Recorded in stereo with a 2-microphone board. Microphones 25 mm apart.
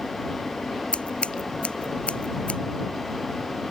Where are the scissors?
60° left (ahead or behind).